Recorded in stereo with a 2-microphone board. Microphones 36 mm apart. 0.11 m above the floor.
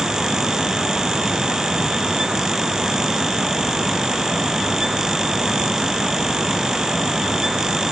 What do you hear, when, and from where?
Only background noise.